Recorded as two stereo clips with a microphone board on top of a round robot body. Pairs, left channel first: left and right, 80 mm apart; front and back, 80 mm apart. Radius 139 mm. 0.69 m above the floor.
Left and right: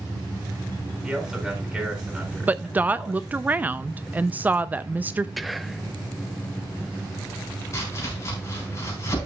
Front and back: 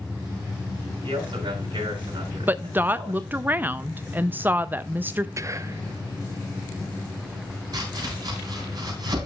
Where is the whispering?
Straight behind, 0.7 m.